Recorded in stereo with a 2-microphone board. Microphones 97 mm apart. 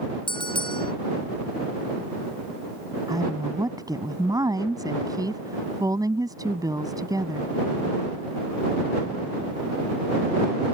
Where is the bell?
60° left (ahead or behind).